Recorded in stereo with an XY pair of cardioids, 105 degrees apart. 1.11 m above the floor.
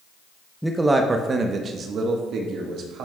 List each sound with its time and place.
0.6 s a man speaking: 5° right, 0.7 m; by 3.1 s 75° right, 1.7 m